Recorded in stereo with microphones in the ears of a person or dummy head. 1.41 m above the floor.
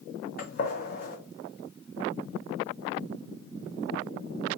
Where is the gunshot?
45° left (ahead or behind), 0.8 m.